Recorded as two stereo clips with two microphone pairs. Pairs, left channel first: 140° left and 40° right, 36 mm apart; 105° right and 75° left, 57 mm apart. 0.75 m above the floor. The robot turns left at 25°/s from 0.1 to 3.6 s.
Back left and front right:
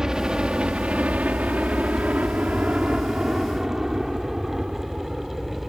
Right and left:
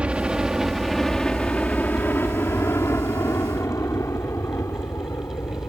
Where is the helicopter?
20° left; by 5.7 s 120° right.